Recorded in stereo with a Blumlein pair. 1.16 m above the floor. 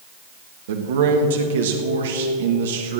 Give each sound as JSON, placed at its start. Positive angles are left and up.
{"t": 0.7, "sound": "a man speaking", "azimuth_deg": -60, "distance_m": 1.6}